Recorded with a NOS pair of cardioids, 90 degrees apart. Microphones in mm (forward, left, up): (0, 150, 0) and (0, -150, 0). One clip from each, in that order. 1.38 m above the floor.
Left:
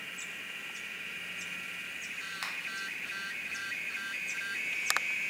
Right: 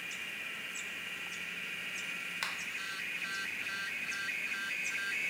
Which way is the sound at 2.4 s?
Straight ahead.